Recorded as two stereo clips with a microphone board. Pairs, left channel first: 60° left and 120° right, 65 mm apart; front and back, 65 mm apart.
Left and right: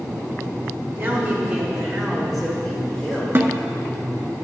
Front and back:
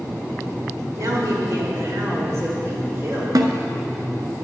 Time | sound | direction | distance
0.9 | a woman speaking | straight behind | 3 m
3.4 | a snare drum | 175° right | 0.7 m